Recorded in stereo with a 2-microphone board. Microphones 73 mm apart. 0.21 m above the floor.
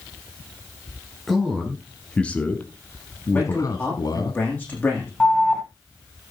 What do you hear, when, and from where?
1.3 s a man speaking: centre (ahead or behind), 3 m; by 4.3 s 60° left (ahead or behind), 2 m
3.3 s a man speaking: 25° left (ahead or behind), 9.5 m
5.2 s an alarm: 5° left (ahead or behind), 1.8 m